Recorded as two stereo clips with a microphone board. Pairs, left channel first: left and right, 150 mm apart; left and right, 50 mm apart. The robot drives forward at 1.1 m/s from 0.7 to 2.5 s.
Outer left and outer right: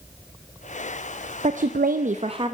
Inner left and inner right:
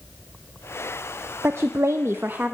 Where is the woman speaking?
50° right (ahead or behind), 0.7 m; by 2.5 s 35° right (ahead or behind), 0.9 m.